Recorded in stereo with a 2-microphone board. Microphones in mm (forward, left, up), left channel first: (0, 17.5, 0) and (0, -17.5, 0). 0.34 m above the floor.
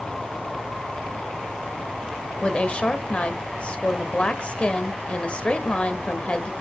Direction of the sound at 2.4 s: 30° left (ahead or behind).